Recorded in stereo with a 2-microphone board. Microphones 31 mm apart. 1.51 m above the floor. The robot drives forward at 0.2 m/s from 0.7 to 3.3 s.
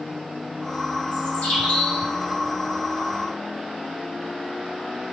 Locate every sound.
1.1 s a bird: 40° left (ahead or behind), 1.0 m; by 2.0 s 35° left (ahead or behind), 1.2 m